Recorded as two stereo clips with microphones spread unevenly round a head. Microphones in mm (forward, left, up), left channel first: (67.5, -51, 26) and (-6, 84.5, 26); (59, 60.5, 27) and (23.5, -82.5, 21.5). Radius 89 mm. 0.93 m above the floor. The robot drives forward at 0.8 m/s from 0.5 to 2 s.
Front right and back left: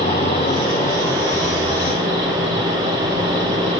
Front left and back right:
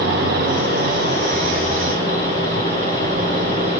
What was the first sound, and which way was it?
An insect, 120° right.